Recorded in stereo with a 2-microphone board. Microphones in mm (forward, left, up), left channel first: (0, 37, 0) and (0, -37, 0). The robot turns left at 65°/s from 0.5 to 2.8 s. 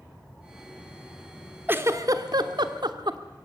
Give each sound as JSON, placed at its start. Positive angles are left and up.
{"t": 1.7, "sound": "a giggle", "side_deg": -30, "distance_m": 1.3}